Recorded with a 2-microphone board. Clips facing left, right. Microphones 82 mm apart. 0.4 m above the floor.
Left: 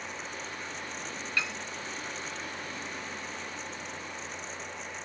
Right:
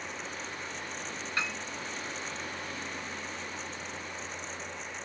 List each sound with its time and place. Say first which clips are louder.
1.4 s a piano: even; 30° right (ahead or behind), 1.5 m